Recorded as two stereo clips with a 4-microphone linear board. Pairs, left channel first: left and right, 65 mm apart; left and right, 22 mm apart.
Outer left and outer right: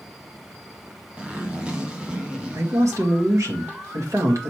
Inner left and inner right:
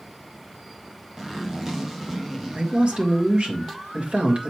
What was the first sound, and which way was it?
A zipper, 20° right (ahead or behind).